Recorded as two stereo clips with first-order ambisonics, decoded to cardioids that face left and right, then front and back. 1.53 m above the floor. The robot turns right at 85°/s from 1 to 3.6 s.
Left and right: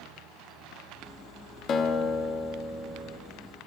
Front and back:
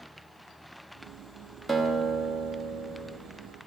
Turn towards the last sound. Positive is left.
turn(degrees=-100)